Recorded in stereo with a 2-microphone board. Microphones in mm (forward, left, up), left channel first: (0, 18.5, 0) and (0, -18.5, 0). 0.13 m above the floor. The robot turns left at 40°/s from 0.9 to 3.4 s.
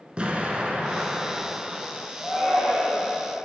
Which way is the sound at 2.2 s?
165° left.